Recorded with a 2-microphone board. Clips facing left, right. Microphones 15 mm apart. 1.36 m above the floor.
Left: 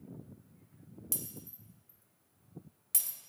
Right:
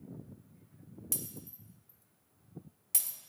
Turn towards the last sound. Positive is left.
turn(degrees=10)  # may be behind; listen again after turning